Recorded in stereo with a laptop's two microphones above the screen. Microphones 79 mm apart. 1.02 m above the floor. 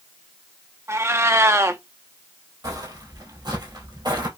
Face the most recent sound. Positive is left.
turn(degrees=-60)  # may be behind; listen again after turning